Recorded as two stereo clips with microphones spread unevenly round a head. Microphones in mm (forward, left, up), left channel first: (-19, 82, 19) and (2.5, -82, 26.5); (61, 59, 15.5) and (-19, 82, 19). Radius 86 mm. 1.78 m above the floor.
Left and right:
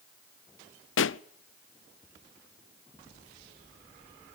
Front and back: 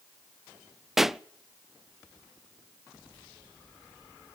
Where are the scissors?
I don't hear scissors.